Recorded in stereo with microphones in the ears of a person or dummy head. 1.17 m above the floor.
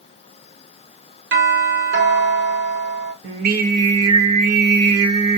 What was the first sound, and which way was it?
A doorbell, 60° right (ahead or behind).